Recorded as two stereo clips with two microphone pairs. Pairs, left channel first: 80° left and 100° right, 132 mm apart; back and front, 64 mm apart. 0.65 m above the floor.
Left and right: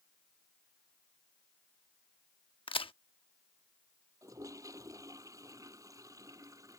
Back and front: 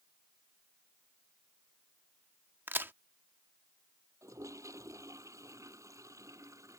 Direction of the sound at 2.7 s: 40° left.